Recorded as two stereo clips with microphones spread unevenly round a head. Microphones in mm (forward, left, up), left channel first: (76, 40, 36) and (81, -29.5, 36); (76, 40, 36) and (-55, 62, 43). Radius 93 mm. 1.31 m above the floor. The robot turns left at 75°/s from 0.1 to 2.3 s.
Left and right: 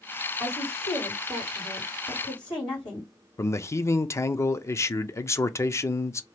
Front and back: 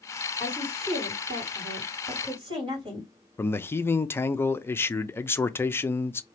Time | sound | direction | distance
0.4 | a woman speaking | 95° right | 2 m
3.4 | a man speaking | 55° left | 0.6 m